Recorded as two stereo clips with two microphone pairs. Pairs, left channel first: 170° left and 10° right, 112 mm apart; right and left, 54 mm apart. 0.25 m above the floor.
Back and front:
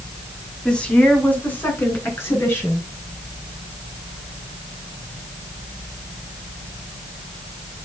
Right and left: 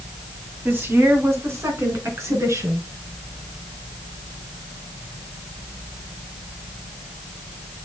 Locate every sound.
0.7 s a woman speaking: 90° left, 1.9 m; by 2.8 s 105° left, 4.5 m